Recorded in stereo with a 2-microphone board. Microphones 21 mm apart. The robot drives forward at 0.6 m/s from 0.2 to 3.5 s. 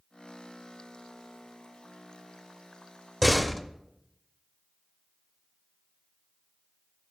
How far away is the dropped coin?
No dropped coin in this recording.